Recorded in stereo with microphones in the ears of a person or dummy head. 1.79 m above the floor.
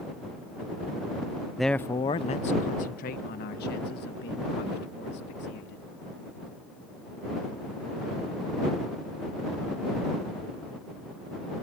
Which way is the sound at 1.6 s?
Centre (ahead or behind).